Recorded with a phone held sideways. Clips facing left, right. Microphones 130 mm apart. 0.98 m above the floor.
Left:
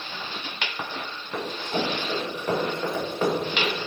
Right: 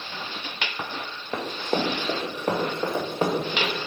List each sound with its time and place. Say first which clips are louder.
1.3 s running footsteps: right 2 dB; 60° right (ahead or behind), 2.5 m; by 3.7 s 10° right (ahead or behind), 3.5 m